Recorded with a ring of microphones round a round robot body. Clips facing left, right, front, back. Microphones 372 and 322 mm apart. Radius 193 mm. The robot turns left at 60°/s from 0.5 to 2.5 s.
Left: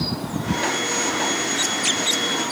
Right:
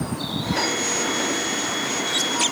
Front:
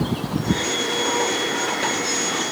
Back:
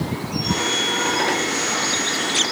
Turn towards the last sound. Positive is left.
No sound to turn to.